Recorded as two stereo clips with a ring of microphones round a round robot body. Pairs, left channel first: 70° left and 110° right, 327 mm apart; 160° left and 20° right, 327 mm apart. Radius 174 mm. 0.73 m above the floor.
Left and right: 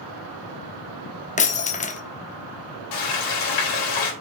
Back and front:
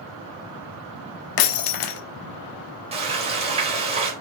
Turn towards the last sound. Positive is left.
turn(degrees=50)